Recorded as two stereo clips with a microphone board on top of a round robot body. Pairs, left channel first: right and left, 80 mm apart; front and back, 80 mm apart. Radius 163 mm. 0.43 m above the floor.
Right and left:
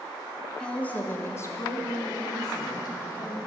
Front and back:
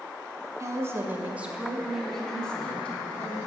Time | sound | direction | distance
0.6 | a woman speaking | 165° right | 1.0 m